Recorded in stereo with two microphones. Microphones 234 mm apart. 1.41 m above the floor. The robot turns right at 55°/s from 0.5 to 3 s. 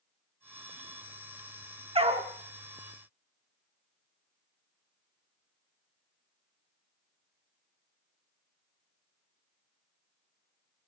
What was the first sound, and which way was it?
A dog barking, 25° right (ahead or behind).